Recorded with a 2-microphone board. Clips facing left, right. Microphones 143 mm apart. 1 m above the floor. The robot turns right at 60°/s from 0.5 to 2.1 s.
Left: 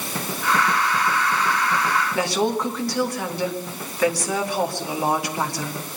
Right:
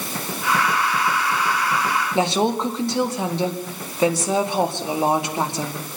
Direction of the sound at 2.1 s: 25° right (ahead or behind).